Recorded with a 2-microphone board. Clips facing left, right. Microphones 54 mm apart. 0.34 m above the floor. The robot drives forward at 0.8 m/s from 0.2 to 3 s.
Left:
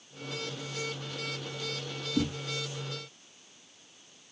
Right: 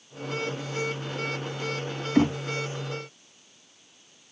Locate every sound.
2.1 s knocking: 70° right (ahead or behind)